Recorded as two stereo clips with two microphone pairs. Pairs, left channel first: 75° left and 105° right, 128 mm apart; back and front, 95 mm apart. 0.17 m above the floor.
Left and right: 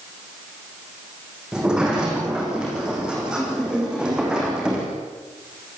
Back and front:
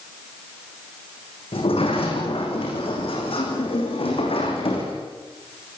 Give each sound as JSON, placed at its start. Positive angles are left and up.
{"t": 1.5, "sound": "a sliding door", "azimuth_deg": 170, "distance_m": 6.0}